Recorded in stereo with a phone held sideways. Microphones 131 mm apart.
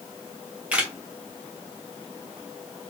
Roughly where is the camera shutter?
Centre.